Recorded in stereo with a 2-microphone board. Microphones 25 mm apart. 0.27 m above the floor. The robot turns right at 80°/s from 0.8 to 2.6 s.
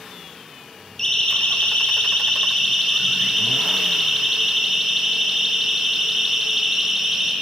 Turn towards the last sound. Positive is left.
turn(degrees=-5)  # may be behind; listen again after turning